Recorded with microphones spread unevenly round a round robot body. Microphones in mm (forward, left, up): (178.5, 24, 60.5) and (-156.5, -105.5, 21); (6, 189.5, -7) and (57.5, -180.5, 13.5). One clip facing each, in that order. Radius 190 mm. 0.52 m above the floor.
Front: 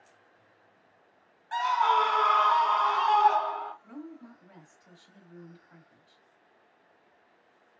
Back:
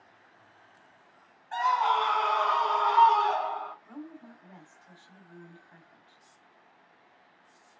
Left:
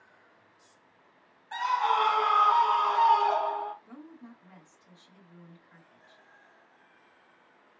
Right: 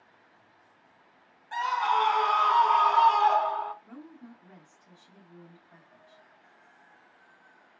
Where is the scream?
10° left, 1.2 m; by 3.7 s 30° right, 1.8 m.